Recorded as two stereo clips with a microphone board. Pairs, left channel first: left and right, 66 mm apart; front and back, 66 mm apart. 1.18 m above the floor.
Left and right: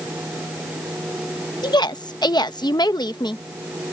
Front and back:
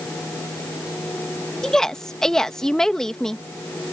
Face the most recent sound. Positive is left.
turn(degrees=80)